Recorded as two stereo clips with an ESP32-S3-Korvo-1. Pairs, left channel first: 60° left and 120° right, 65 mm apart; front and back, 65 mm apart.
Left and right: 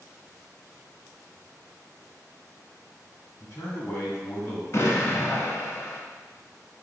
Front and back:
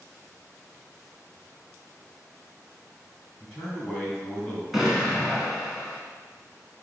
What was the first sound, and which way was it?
A man speaking, 85° left.